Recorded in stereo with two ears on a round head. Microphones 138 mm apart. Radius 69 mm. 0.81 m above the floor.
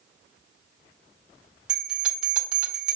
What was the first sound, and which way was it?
A bell, 5° right (ahead or behind).